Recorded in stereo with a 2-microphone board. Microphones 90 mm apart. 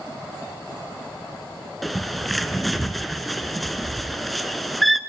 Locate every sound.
1.8 s a bird: centre (ahead or behind), 0.9 m